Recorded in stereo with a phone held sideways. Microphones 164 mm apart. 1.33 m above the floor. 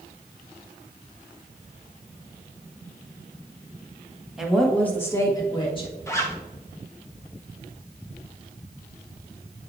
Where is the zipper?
15° left (ahead or behind), 1.4 m.